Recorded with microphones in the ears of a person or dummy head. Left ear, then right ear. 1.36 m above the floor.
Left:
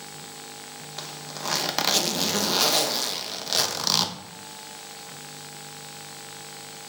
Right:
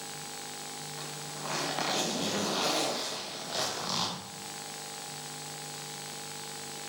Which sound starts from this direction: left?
A zipper, at 1.0 s.